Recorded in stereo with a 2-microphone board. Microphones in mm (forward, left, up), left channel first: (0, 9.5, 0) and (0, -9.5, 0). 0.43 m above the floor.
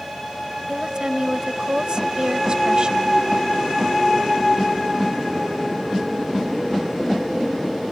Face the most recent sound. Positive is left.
turn(degrees=-50)  # may be behind; listen again after turning